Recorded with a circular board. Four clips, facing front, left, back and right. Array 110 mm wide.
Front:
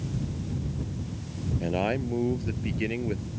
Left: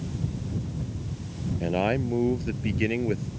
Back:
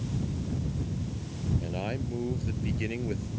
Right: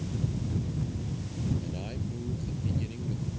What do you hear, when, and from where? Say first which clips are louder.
1.6 s a man speaking: left 12 dB, front 6 dB; 60° left; by 3.3 s 80° left